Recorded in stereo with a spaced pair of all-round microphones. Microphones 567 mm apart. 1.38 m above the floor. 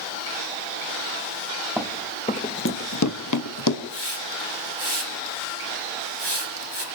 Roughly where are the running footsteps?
Centre.